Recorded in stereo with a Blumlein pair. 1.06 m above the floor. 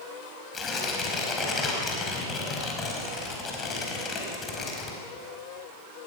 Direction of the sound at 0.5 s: 20° left.